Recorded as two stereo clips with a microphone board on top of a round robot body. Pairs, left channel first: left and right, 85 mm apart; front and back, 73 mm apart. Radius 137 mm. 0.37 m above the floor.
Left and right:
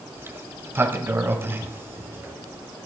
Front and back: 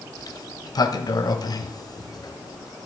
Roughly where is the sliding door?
Ahead right.